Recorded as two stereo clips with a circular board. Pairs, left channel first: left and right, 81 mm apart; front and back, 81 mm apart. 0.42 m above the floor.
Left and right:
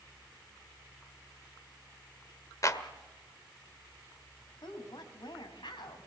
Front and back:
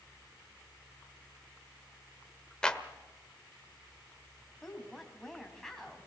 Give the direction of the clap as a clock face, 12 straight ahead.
9 o'clock.